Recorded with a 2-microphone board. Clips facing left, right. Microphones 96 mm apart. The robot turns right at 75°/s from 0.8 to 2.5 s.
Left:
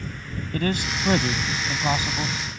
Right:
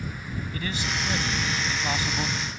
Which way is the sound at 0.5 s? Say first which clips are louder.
Left 7 dB; 65° left.